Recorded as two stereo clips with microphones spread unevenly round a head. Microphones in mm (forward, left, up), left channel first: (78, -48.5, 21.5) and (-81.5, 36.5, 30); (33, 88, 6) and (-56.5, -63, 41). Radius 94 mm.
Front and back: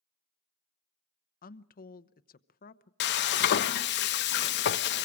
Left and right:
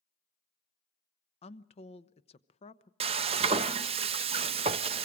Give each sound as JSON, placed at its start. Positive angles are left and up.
{"t": 1.4, "sound": "a woman speaking", "azimuth_deg": 10, "distance_m": 0.8}
{"t": 3.0, "sound": "frying", "azimuth_deg": -60, "distance_m": 0.6}